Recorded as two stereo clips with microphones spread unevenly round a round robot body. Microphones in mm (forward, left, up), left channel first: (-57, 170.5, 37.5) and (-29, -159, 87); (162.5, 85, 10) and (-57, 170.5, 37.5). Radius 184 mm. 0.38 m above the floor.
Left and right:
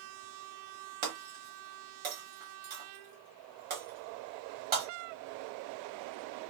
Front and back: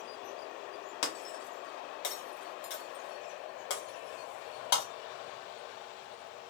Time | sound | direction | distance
1.0 | breaking glass | 20° right | 0.9 m